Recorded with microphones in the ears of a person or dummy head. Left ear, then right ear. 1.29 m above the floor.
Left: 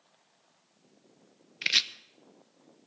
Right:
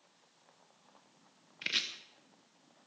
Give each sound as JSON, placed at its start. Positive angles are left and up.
{"t": 1.6, "sound": "chopping", "side_deg": 25, "distance_m": 0.8}